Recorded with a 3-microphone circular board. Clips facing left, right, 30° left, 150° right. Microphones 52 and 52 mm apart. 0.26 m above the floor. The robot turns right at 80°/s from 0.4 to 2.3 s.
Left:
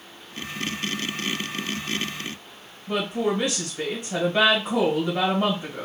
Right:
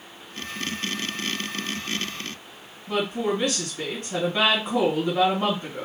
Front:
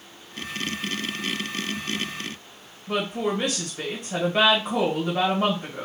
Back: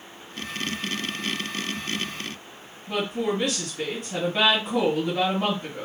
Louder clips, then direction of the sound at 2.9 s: Even, even; 35° left.